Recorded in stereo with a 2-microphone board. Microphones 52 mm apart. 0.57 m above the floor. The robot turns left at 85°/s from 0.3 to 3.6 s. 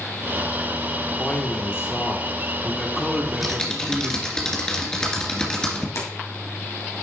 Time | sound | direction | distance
1.2 | a man speaking | 155° left | 1.2 m
3.2 | typing on a keyboard | 165° right | 2 m
6.0 | keys jangling | 80° left | 2.5 m